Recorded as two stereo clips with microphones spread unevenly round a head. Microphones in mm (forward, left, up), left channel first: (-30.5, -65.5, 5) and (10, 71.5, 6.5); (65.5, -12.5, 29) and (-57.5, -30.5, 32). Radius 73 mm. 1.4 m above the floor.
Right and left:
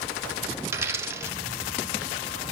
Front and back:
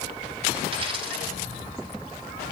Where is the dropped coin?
140° left, 2 m.